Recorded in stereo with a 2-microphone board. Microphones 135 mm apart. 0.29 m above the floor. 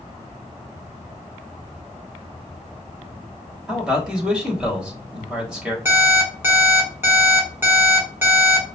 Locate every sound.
3.7 s a man speaking: 5° right (ahead or behind), 1.1 m
5.8 s an alarm clock: 20° right (ahead or behind), 1.4 m